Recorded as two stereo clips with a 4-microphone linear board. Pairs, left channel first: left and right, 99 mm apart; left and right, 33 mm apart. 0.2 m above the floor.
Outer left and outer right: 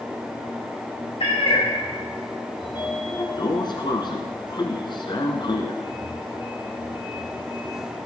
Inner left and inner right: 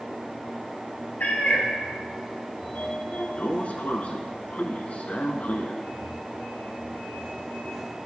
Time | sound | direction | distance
1.2 | a cat meowing | 70° left (ahead or behind) | 6 m
2.6 | a sliding door | 50° left (ahead or behind) | 1.3 m